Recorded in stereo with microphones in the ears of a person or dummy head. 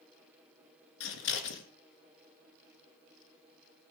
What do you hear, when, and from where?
1.0 s scissors: 65° left (ahead or behind), 3 m